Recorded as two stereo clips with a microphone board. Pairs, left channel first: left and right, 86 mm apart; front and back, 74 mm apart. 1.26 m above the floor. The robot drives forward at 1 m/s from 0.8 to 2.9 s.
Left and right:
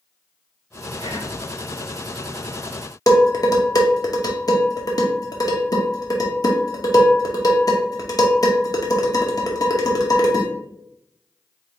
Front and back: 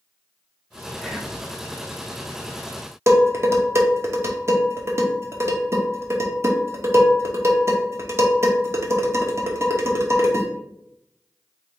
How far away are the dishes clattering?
About 1.0 m.